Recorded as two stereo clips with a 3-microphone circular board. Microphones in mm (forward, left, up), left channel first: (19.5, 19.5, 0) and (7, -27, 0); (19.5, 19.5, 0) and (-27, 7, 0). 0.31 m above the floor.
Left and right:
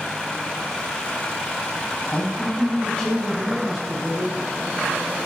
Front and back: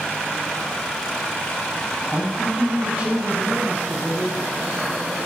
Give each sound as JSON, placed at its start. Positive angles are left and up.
{"t": 2.1, "sound": "a man speaking", "azimuth_deg": 140, "distance_m": 2.5}